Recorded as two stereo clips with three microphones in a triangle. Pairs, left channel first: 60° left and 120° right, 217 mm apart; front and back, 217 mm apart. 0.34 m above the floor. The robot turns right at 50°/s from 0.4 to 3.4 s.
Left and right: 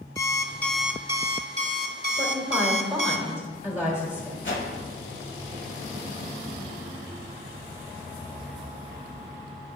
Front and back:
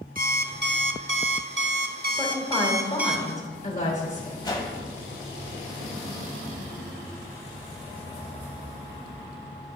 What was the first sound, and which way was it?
An alarm clock, 130° left.